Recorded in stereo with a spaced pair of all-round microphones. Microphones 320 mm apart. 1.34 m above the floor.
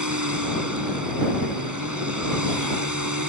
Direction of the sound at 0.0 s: 85° right.